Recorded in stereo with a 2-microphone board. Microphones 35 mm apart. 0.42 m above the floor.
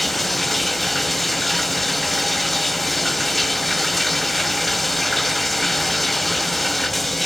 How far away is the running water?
About 0.9 m.